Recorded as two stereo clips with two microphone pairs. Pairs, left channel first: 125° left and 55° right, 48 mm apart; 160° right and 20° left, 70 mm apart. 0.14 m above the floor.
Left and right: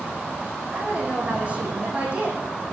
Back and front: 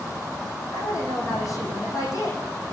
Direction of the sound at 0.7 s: 120° right.